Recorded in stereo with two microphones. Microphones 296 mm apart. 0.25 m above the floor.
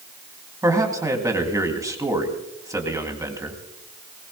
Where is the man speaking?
10° right (ahead or behind), 2 m.